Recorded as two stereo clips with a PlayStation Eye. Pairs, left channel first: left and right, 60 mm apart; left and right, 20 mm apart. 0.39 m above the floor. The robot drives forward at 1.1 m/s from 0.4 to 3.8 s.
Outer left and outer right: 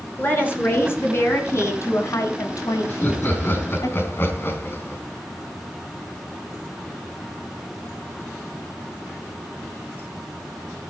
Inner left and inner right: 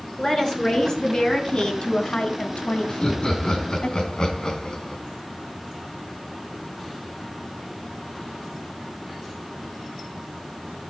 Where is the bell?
No bell in this recording.